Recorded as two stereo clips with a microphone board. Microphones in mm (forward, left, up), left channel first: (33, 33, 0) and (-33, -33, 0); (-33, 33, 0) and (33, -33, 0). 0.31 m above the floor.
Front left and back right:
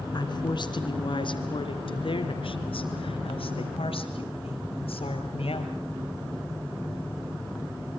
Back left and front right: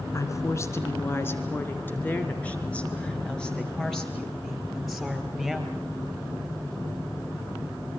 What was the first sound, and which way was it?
A woman speaking, 80° left.